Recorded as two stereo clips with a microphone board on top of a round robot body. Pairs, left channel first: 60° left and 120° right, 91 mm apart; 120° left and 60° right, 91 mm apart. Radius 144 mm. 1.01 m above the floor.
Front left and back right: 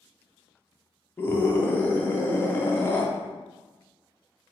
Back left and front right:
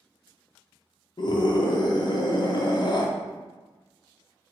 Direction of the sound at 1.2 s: 120° left.